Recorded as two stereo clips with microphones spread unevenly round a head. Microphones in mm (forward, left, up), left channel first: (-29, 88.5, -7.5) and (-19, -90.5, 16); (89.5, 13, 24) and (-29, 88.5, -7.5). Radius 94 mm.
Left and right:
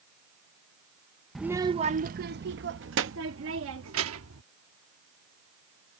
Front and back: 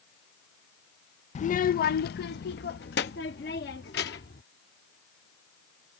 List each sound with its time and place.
1.4 s a child speaking: 10° left; by 4.4 s 70° right